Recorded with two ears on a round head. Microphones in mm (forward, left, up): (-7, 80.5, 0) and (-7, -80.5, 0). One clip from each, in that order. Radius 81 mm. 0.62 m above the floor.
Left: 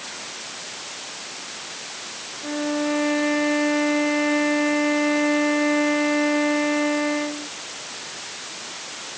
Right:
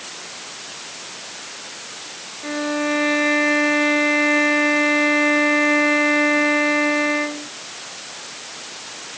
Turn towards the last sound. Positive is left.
turn(degrees=-60)  # may be behind; listen again after turning